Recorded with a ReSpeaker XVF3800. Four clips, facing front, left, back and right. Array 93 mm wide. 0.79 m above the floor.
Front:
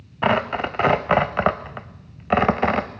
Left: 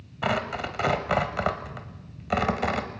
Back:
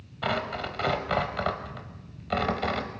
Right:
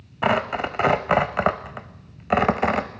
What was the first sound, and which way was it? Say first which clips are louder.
Tearing paper: right 6 dB, front 9 dB; 35° right.